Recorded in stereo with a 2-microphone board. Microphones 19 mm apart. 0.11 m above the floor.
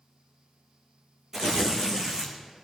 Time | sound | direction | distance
1.3 | tearing paper | 25° right (ahead or behind) | 1.9 m